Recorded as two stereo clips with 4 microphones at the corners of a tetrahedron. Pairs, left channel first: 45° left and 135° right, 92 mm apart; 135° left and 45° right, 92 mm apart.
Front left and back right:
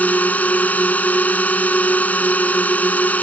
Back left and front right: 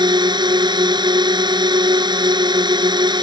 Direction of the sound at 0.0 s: 25° right.